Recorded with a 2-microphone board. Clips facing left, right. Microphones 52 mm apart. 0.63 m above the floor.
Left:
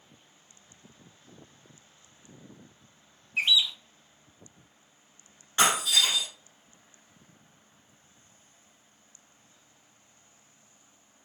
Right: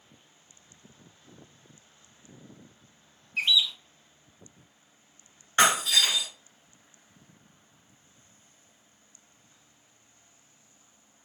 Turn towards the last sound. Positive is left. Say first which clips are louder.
# right 2 dB
turn(degrees=-50)  # may be behind; listen again after turning